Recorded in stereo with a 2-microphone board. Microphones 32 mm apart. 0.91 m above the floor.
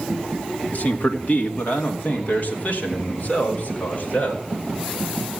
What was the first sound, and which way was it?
A man speaking, 55° left (ahead or behind).